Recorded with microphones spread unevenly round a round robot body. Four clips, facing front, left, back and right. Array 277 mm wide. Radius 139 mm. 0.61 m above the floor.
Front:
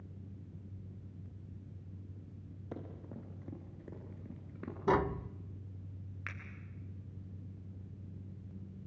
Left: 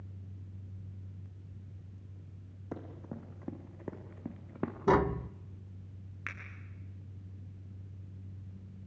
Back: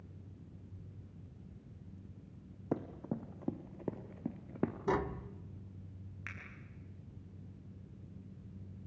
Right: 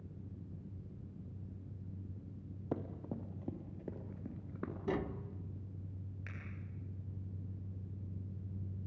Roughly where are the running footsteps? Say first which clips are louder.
Right 2 dB, back 9 dB; behind.